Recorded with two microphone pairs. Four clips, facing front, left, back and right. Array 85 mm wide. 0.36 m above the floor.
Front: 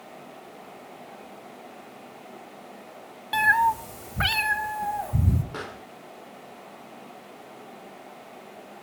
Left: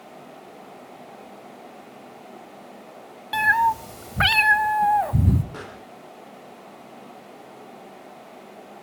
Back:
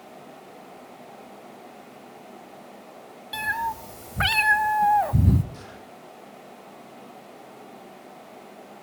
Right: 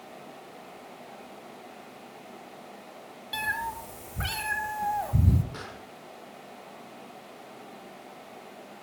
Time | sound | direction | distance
3.3 | a cat meowing | 50° left | 0.9 m
5.5 | a pop | 10° left | 4 m